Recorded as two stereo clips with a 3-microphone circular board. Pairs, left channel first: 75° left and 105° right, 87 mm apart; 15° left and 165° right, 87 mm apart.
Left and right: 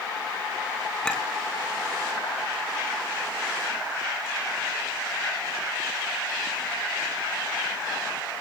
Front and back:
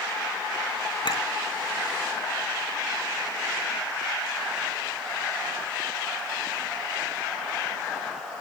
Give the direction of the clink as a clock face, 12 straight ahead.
12 o'clock.